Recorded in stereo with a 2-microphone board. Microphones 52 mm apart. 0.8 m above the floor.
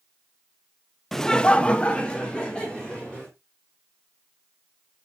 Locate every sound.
1.1 s laughter: 10° left (ahead or behind), 0.7 m; by 3.3 s 15° left (ahead or behind), 2.5 m